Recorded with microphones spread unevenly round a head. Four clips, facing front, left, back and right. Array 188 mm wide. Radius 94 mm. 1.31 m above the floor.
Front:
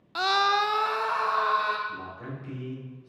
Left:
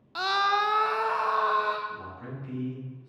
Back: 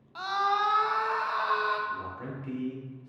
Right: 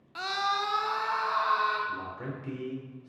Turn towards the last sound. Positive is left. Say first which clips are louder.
# right 3 dB, back 2 dB
turn(degrees=-100)